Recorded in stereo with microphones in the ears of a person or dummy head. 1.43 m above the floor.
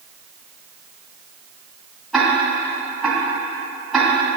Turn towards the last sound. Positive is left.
turn(degrees=0)  # may be behind; listen again after turning